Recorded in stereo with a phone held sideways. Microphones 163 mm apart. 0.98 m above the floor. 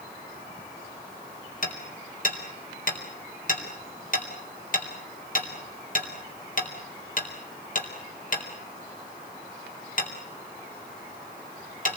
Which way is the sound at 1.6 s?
55° left (ahead or behind).